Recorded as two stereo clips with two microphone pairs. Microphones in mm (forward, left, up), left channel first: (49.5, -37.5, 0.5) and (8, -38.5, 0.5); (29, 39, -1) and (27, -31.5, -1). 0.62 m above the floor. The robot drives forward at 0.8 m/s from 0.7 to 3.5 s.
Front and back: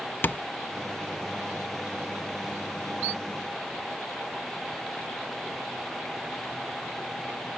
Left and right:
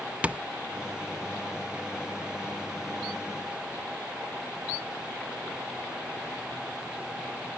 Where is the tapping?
20° right.